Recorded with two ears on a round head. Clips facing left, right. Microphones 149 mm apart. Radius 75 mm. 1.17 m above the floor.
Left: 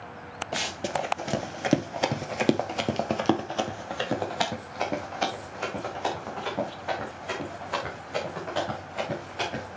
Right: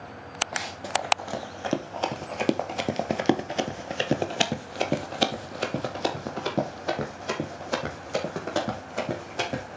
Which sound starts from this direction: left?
Running footsteps, at 0.5 s.